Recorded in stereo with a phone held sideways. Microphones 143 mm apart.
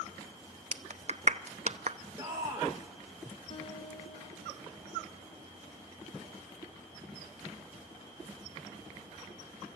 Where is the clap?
55° right (ahead or behind), 0.6 m.